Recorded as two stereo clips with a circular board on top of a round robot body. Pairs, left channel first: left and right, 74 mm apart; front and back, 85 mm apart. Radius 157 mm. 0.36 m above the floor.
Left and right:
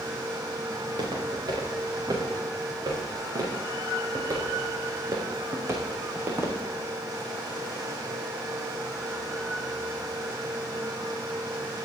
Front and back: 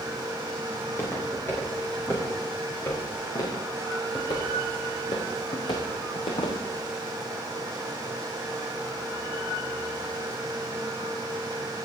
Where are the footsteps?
65° right, 5 m; by 6.6 s 30° right, 2.5 m.